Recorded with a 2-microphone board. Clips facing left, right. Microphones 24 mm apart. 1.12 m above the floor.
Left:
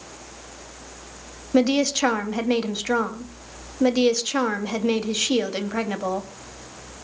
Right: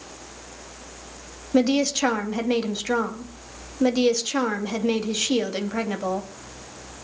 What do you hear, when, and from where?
1.5 s a woman speaking: 15° left (ahead or behind), 2.5 m